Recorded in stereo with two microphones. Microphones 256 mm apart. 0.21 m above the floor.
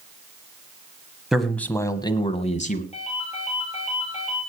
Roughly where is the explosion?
I don't hear an explosion.